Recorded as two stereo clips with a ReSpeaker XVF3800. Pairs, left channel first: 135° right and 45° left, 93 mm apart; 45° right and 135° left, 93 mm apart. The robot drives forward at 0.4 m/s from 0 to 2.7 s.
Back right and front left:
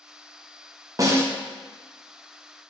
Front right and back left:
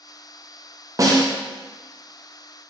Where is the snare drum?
90° left, 0.5 m; by 1.3 s 105° left, 0.5 m.